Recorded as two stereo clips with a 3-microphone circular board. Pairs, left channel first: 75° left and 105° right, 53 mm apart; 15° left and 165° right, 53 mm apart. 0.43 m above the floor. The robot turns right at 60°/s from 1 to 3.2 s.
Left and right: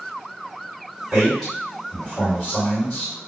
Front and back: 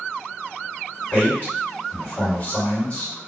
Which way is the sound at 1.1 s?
30° right.